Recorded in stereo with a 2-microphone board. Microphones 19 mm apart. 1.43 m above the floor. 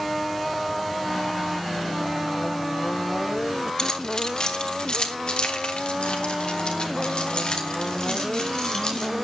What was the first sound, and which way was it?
Keys jangling, 35° left (ahead or behind).